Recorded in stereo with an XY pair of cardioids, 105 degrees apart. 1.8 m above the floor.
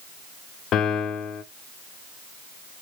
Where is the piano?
70° left, 0.6 m.